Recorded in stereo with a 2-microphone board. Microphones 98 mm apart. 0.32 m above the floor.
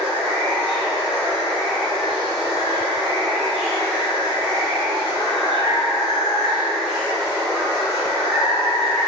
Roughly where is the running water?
Centre.